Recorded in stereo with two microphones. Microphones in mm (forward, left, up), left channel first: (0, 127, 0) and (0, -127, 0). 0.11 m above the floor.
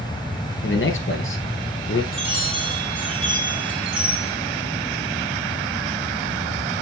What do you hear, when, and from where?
0.6 s a man speaking: 55° left (ahead or behind), 1.8 m
2.1 s a chime: 65° left (ahead or behind), 4.5 m